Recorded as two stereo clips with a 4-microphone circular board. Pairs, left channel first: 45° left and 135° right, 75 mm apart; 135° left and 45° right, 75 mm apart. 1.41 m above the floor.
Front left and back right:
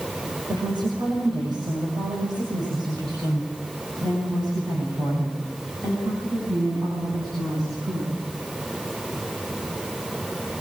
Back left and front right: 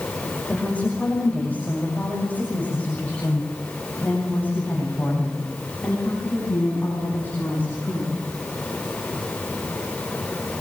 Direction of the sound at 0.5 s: 150° right.